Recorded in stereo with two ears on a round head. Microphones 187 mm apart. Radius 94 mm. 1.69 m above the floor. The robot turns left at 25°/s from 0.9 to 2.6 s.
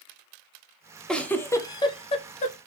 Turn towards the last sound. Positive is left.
turn(degrees=40)  # may be behind; listen again after turning